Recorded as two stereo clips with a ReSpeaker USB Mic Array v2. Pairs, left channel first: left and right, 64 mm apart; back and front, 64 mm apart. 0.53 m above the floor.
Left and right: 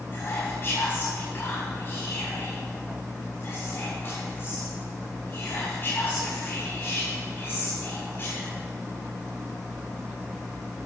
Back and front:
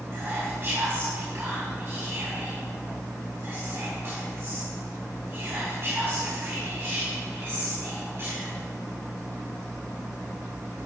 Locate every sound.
0.1 s whispering: 40° left, 4.5 m